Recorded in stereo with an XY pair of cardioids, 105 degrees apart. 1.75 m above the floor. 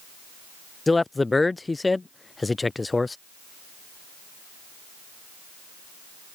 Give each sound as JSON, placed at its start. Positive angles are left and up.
{"t": 0.9, "sound": "a man speaking", "azimuth_deg": 20}